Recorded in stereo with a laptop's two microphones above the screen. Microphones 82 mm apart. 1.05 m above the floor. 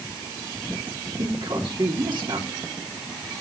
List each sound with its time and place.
1.2 s a man speaking: 70° right (ahead or behind), 2.5 m